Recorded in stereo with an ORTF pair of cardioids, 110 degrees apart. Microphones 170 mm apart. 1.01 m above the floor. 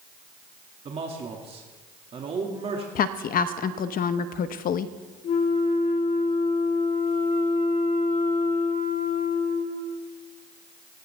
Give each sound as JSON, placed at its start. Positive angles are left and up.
{"t": 0.8, "sound": "a man speaking", "azimuth_deg": -40, "distance_m": 2.0}
{"t": 3.0, "sound": "a woman speaking", "azimuth_deg": 65, "distance_m": 0.8}
{"t": 5.2, "sound": "a flute", "azimuth_deg": 65, "distance_m": 3.0}